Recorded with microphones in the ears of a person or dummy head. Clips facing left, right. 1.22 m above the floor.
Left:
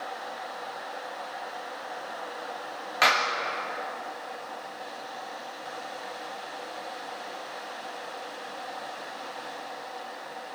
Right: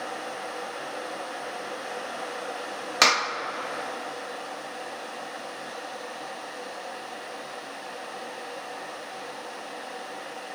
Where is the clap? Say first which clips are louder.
Even; 60° right (ahead or behind), 1.4 m.